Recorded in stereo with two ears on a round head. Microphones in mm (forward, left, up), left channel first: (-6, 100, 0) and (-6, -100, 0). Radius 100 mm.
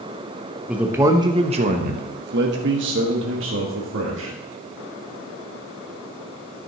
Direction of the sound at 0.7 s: 5° right (ahead or behind).